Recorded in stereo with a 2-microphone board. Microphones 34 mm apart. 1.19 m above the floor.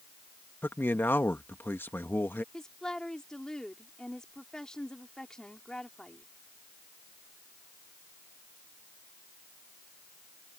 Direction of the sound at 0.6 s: 80° left.